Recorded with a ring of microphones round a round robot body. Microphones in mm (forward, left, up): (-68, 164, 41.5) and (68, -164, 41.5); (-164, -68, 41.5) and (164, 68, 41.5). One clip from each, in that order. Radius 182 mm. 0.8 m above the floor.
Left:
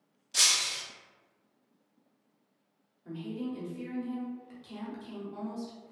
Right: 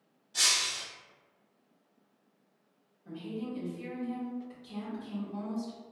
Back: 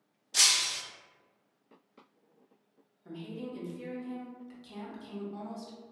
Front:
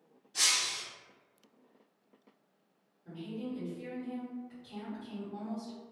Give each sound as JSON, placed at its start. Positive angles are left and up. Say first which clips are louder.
{"t": 0.3, "sound": "breaking glass", "louder": "left 1 dB, back 4 dB", "azimuth_deg": 165, "distance_m": 0.5}
{"t": 3.0, "sound": "a woman speaking", "louder": "left 1 dB, even", "azimuth_deg": 170, "distance_m": 1.3}